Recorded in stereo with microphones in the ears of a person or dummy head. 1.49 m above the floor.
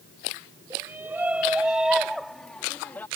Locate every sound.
0.7 s a shout: 15° right (ahead or behind); by 3.1 s 10° left (ahead or behind)